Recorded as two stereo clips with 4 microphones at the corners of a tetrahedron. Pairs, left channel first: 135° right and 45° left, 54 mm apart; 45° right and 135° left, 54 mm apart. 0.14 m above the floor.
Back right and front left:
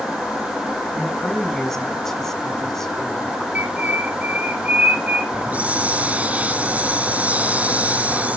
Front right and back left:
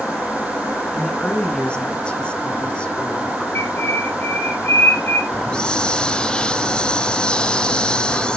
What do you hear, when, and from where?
0.9 s a woman speaking: 65° right, 1.4 m
3.5 s a bird: 10° right, 1.8 m
5.3 s a hiss: 10° left, 0.5 m